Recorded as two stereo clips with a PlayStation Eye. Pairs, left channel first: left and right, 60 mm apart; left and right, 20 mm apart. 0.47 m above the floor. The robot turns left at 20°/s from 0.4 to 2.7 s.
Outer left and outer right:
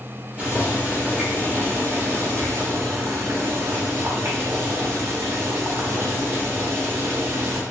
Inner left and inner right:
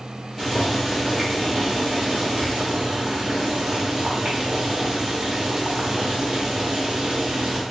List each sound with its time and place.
0.4 s boiling: 30° right, 1.1 m; by 7.6 s 75° right, 1.1 m